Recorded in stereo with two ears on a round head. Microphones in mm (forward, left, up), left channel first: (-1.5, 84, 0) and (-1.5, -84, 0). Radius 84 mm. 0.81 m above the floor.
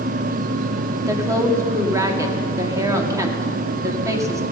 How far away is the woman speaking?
About 2 m.